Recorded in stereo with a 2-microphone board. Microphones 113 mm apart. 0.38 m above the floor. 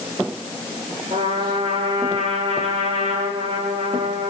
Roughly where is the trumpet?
Right.